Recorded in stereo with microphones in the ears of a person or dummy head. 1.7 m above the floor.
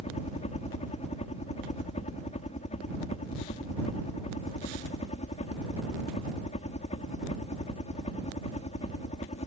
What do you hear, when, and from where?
0.0 s a helicopter: 30° left (ahead or behind)